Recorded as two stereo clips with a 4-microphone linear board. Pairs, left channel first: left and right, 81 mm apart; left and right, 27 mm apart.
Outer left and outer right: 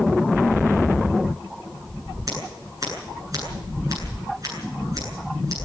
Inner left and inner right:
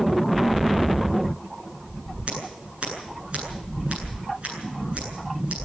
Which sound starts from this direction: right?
Scissors, at 2.3 s.